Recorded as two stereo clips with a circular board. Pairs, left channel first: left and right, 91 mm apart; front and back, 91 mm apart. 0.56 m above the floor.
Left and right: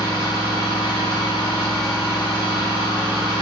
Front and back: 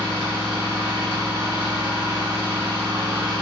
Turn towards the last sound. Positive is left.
turn(degrees=120)